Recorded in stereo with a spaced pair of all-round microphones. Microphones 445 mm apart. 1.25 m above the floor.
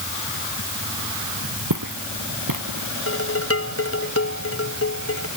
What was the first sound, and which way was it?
Footsteps, 45° right (ahead or behind).